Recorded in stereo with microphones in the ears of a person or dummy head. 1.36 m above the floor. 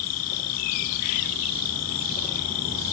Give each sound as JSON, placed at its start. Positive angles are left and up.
{"t": 0.0, "sound": "an insect", "side_deg": 75}